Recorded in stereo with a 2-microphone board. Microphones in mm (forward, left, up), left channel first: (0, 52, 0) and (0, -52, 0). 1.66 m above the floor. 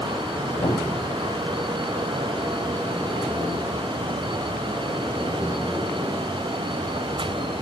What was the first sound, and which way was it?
A cupboard door, 35° left (ahead or behind).